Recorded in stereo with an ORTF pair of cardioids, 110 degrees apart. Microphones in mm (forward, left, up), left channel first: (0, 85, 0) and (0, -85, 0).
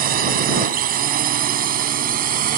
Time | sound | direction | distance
0.0 | a drone | 60° right | ?